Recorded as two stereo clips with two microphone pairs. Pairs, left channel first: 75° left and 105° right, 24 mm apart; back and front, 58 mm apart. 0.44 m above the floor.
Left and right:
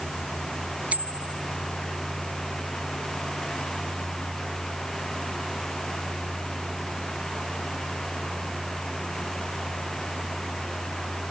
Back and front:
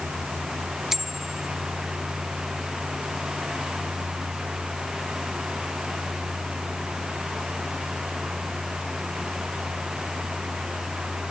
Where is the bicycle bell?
85° right.